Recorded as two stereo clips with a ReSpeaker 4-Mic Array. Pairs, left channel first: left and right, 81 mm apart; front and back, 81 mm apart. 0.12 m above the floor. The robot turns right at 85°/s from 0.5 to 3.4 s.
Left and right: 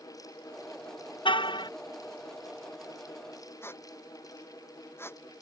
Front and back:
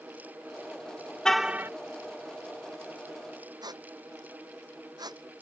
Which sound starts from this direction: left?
A car horn, at 1.2 s.